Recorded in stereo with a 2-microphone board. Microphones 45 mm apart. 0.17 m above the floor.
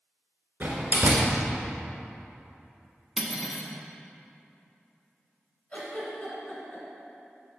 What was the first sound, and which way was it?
A door slam, 50° right (ahead or behind).